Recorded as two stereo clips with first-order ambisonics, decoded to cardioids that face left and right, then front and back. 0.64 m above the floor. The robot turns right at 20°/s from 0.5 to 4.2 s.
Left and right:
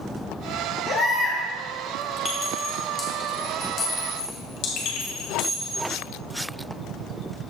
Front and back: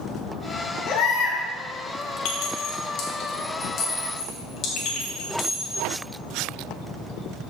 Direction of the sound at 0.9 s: 5° left.